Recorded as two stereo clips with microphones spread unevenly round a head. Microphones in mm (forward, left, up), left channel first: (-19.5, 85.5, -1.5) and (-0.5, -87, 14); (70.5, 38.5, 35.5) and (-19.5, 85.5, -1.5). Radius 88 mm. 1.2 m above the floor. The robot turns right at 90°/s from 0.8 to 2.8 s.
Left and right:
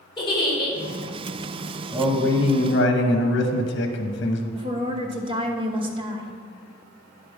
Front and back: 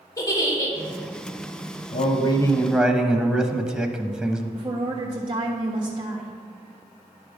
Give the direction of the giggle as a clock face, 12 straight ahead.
11 o'clock.